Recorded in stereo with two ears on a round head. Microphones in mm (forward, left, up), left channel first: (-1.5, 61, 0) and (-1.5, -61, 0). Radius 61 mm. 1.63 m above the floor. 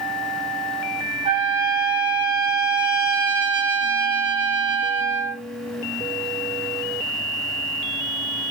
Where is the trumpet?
40° right (ahead or behind), 4.5 m.